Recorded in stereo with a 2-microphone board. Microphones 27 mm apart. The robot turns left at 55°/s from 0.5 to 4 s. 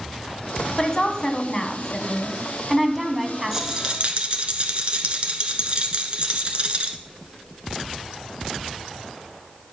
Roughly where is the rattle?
Centre.